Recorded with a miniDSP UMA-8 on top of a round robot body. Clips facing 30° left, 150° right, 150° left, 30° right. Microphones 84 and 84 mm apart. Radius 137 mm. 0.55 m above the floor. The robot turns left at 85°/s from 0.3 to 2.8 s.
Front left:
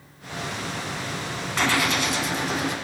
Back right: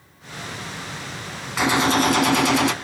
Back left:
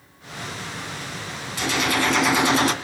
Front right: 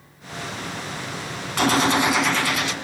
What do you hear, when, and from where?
1.6 s a gunshot: 65° right, 2 m; by 2.7 s 165° right, 2 m